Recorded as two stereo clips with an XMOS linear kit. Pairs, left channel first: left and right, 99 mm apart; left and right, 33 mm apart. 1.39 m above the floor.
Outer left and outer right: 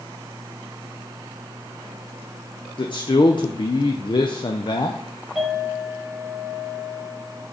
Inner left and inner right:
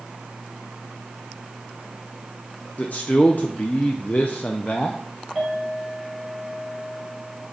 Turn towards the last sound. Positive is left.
turn(degrees=0)  # may be behind; listen again after turning